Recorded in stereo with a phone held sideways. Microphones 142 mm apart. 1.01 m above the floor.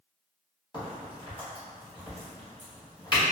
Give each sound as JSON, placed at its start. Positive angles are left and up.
{"t": 0.7, "sound": "a crack", "side_deg": 35, "distance_m": 1.6}